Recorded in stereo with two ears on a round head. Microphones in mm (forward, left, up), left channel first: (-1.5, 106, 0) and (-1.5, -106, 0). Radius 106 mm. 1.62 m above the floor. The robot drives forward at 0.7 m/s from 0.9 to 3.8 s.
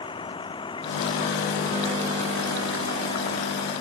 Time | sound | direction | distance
0.0 | a vehicle | 20° left (ahead or behind) | ?